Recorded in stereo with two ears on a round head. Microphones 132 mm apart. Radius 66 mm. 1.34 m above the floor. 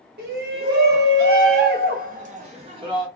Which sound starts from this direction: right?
A shout, at 0.2 s.